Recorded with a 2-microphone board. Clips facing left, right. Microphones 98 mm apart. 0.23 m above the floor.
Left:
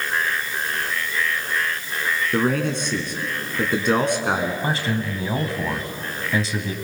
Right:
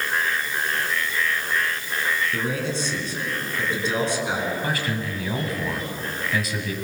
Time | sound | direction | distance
2.3 | a man speaking | 60° left (ahead or behind) | 3 m
4.6 | a man speaking | 30° left (ahead or behind) | 1.9 m